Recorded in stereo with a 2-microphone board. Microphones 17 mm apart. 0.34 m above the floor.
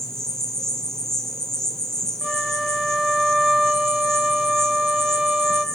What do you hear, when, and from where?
0.0 s an insect: 30° left (ahead or behind), 3 m
2.2 s a flute: 60° right (ahead or behind), 1.2 m